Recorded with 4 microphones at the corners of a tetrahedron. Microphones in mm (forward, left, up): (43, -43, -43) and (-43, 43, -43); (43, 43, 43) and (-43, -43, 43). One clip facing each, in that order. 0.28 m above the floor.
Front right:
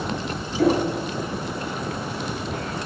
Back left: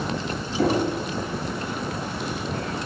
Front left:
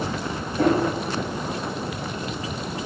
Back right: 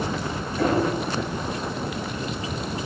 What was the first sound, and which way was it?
Knocking, 105° left.